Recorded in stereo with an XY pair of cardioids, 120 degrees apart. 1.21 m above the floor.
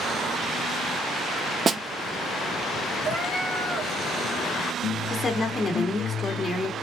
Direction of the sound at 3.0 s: 55° right.